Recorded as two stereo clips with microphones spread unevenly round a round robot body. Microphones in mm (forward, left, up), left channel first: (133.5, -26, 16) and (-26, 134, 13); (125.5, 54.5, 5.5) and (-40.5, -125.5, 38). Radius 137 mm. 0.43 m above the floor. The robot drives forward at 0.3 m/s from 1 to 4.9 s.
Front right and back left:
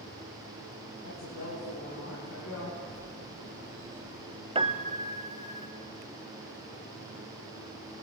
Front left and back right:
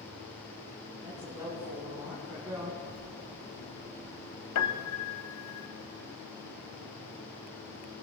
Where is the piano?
70° left, 1.0 m; by 5.7 s 75° left, 0.9 m.